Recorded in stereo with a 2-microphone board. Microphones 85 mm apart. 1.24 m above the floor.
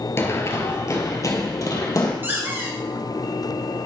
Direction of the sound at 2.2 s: 25° right (ahead or behind).